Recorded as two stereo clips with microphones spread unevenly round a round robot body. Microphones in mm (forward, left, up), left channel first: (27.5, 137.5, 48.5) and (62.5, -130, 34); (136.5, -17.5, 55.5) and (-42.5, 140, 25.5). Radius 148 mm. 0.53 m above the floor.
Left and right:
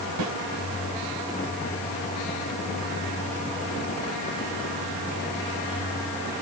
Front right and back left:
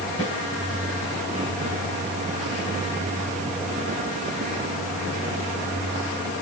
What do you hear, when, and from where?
0.2 s a snare drum: 110° right, 3.5 m